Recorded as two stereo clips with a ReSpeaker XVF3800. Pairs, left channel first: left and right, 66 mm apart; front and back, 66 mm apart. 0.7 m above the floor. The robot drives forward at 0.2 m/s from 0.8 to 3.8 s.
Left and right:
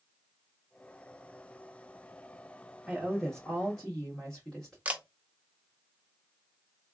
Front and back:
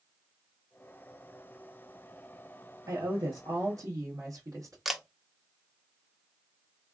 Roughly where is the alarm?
No alarm in this recording.